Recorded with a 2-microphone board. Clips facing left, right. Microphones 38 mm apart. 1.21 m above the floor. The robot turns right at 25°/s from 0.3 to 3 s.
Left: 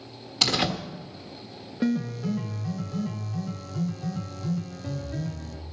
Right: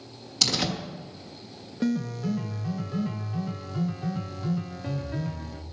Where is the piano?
165° left, 0.6 m; by 5.6 s 165° right, 0.6 m.